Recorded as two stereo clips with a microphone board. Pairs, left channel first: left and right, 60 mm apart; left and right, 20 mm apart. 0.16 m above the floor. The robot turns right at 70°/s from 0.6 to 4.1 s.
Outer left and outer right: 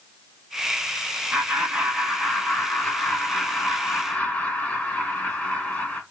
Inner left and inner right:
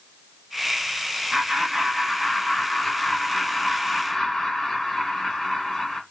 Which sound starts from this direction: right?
Laughter, at 1.3 s.